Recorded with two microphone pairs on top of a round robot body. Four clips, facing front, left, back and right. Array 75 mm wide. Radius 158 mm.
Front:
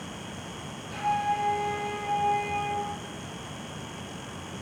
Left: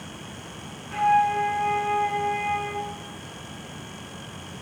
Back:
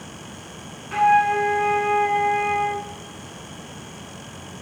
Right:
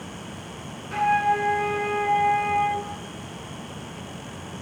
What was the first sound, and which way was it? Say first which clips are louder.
A flute: left 1 dB, back 10 dB; 160° right.